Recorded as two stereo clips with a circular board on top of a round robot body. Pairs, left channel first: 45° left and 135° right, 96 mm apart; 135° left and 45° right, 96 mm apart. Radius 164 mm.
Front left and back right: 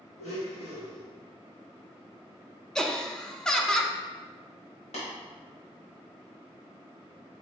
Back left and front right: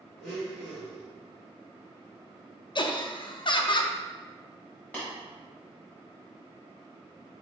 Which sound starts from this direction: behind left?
Laughter, at 2.8 s.